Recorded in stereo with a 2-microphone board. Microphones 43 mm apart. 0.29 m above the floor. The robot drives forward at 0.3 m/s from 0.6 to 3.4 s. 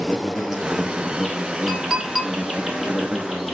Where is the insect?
10° right (ahead or behind), 1.7 m; by 3.5 s 5° right (ahead or behind), 2.5 m.